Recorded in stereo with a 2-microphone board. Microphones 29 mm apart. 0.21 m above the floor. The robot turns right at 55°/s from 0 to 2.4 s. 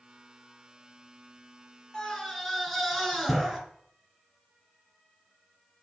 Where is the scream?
20° left (ahead or behind), 3 m; by 3.6 s centre (ahead or behind), 3 m.